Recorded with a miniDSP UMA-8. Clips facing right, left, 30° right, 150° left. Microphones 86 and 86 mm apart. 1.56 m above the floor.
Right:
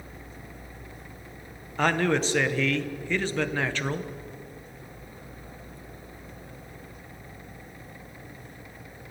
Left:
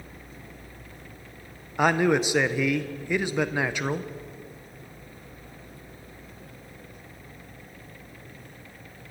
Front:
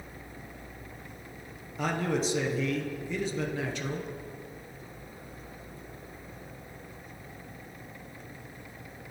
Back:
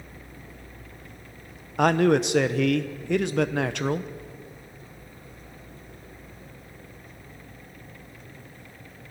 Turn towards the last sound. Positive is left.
turn(degrees=170)